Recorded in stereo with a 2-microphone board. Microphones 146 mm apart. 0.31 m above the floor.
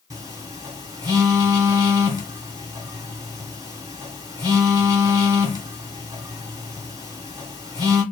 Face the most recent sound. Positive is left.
turn(degrees=-25)  # may be behind; listen again after turning